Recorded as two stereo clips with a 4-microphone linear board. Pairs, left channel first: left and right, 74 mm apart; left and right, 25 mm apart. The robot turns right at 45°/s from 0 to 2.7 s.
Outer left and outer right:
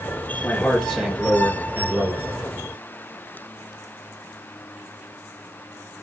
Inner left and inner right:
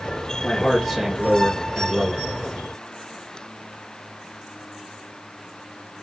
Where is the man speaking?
160° left, 3 m; by 2.3 s 115° right, 3 m.